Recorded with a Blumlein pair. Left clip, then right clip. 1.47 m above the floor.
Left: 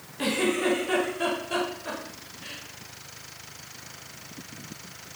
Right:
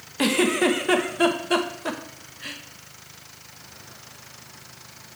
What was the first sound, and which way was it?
A giggle, 30° right.